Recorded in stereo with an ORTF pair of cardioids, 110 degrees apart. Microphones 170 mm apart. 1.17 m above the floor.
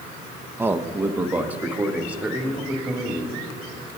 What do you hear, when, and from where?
0.6 s a man speaking: 15° right, 0.8 m; by 3.4 s 5° right, 2.5 m